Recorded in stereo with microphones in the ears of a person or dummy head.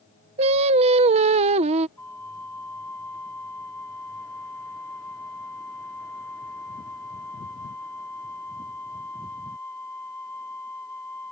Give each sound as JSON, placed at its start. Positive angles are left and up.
{"t": 0.4, "sound": "singing", "side_deg": -35}
{"t": 2.0, "sound": "a flute", "side_deg": 10}